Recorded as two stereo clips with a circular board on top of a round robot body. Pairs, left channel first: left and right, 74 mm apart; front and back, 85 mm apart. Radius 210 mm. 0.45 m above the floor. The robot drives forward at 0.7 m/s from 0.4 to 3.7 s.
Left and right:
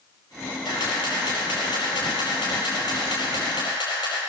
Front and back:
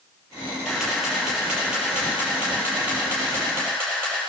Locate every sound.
0.7 s a camera shutter: 90° left, 5.5 m; by 4.2 s 115° left, 6 m